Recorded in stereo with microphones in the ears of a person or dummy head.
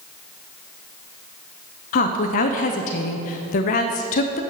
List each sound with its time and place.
1.9 s a woman speaking: 40° left (ahead or behind), 0.7 m